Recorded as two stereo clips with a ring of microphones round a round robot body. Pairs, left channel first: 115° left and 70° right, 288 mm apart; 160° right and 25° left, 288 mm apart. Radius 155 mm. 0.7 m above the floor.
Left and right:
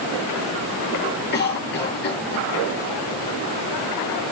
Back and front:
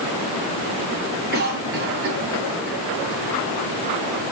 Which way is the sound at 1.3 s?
70° left.